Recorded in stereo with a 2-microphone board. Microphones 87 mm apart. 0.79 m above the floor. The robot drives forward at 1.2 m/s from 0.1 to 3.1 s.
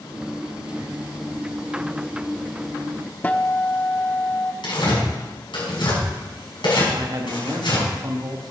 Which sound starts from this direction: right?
A man speaking, at 6.9 s.